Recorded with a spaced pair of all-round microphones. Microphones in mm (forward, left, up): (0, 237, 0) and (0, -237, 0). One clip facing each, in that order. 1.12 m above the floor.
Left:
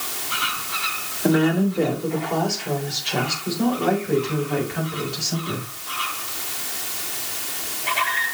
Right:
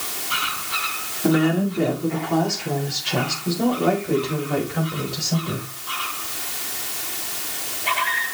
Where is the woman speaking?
25° right (ahead or behind), 2.5 m; by 5.7 s 65° right (ahead or behind), 4.5 m.